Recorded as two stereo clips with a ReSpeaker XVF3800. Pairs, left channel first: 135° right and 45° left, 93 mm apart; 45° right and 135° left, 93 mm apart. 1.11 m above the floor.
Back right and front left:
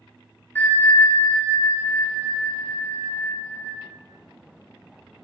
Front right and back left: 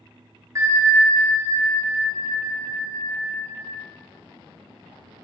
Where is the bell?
170° left, 0.5 m.